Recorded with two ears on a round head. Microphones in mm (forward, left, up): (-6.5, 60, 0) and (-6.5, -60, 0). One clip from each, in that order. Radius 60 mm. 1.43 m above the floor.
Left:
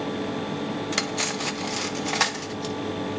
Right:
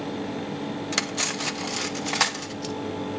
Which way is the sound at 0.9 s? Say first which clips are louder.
Right 1 dB; 15° right (ahead or behind).